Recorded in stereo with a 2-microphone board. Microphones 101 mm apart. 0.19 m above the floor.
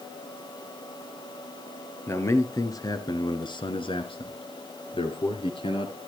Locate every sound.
2.1 s a man speaking: 25° left (ahead or behind), 3 m; by 6.0 s 60° left (ahead or behind), 3.5 m